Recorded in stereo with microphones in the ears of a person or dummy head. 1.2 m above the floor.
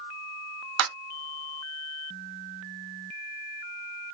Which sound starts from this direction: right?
A clap, at 0.8 s.